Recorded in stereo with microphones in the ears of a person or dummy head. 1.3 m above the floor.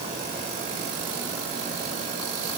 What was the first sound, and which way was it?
Only background noise.